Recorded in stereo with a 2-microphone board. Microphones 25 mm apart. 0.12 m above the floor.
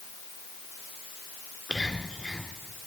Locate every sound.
1.7 s whispering: 30° left (ahead or behind), 1.3 m